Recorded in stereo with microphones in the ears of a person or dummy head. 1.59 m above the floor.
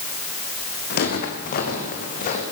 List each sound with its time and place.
0.9 s footsteps: 45° left (ahead or behind), 4.5 m; by 2.4 s 35° left (ahead or behind), 5.5 m